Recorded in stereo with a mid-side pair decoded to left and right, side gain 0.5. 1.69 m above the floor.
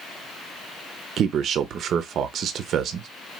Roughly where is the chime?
No chime in this recording.